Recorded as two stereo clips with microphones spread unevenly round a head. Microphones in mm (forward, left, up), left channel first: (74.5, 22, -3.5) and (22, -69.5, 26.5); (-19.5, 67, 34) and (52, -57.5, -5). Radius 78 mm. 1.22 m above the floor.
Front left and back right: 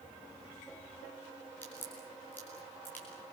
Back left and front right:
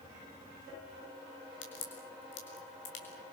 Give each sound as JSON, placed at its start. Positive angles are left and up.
{"t": 1.6, "sound": "a crack", "azimuth_deg": 135, "distance_m": 6.5}